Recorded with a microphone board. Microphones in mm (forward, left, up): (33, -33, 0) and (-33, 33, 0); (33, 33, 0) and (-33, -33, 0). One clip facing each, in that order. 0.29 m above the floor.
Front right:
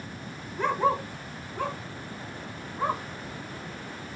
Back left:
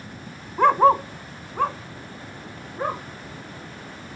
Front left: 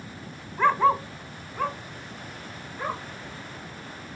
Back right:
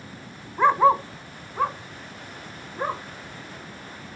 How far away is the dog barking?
About 0.6 m.